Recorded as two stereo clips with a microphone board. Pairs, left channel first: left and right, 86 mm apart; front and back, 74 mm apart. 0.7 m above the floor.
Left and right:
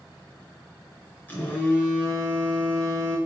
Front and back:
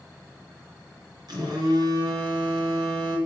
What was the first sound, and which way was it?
A phone buzzing, 160° left.